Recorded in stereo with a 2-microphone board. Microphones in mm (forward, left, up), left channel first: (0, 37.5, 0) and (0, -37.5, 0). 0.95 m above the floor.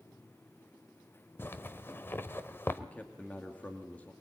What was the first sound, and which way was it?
A zipper, 25° left (ahead or behind).